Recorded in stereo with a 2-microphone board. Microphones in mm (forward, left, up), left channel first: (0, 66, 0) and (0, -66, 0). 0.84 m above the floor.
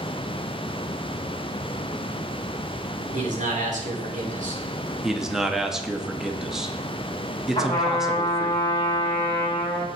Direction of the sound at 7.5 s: 30° left (ahead or behind).